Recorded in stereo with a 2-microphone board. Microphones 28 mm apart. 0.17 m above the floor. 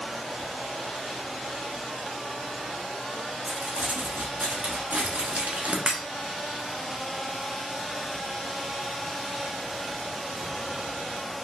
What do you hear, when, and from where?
3.5 s crumpling: 60° right (ahead or behind), 1.3 m
5.9 s breaking glass: 30° right (ahead or behind), 1.3 m